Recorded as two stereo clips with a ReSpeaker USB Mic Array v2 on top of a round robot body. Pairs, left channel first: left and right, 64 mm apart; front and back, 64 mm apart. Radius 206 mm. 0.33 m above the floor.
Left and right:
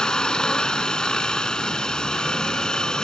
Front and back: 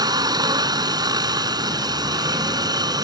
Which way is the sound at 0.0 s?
170° left.